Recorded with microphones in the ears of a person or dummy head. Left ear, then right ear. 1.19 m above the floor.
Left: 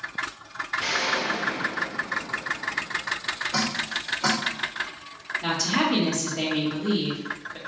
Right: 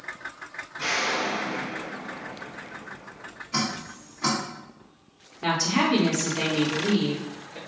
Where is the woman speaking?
45° left (ahead or behind), 1.6 m.